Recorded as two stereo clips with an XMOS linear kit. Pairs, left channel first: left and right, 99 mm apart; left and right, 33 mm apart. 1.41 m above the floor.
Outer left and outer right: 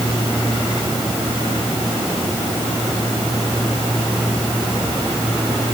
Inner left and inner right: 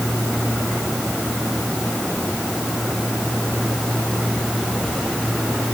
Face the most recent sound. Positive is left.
No sound to turn to.